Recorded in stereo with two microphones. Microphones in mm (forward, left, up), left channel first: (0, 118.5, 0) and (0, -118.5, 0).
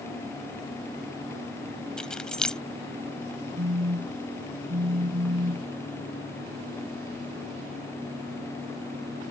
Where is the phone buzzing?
55° right (ahead or behind).